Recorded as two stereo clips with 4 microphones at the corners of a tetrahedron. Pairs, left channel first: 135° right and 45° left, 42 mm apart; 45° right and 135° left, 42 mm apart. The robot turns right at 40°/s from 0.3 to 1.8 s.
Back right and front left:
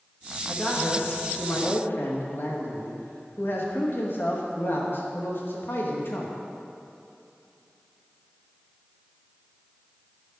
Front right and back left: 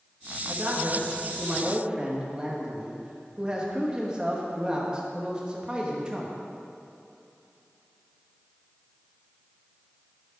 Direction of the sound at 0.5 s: 150° left.